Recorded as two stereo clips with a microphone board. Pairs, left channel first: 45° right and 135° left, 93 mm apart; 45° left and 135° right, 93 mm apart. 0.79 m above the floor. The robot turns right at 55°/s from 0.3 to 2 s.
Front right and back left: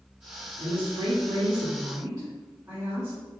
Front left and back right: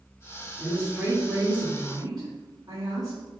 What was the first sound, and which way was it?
A woman speaking, 120° left.